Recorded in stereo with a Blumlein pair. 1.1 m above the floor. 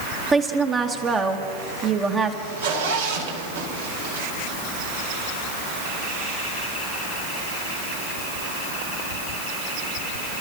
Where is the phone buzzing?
No phone buzzing in this recording.